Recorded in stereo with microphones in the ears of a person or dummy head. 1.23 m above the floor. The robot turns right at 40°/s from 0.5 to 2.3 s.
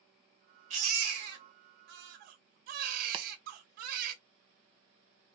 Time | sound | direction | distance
0.7 | a baby crying | 130° right | 1.3 m
3.1 | chopping | 25° right (ahead or behind) | 0.7 m